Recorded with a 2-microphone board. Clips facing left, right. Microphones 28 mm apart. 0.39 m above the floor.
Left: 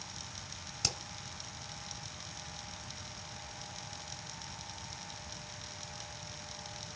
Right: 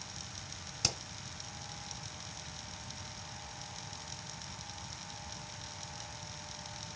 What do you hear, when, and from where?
0.8 s hammering: 10° right (ahead or behind), 1.9 m